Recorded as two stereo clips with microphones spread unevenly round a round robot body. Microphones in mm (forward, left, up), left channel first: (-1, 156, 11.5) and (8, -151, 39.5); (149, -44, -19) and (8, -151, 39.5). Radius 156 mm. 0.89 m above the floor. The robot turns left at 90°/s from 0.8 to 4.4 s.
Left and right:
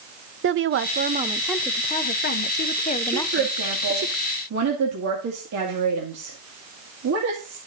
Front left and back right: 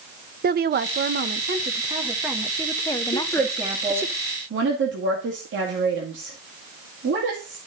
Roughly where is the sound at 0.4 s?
Behind right.